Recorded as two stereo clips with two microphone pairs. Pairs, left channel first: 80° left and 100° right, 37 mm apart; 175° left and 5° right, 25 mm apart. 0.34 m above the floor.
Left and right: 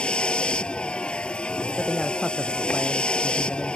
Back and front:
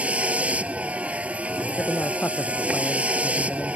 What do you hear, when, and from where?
0.0 s a vehicle: 20° left
1.8 s a man speaking: 165° left